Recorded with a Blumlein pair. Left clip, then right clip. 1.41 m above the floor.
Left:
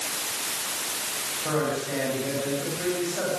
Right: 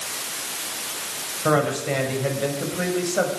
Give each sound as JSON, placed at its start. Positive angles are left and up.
{"t": 1.4, "sound": "a man speaking", "azimuth_deg": -60, "distance_m": 8.0}